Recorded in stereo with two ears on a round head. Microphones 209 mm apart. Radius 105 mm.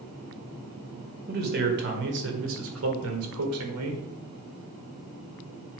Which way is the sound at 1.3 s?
40° right (ahead or behind).